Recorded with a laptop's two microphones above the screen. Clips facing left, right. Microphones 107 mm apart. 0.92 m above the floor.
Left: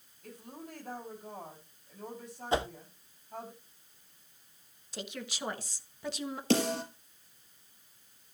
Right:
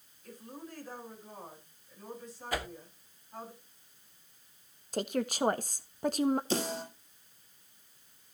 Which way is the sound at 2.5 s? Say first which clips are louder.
Left 6 dB; 25° left (ahead or behind).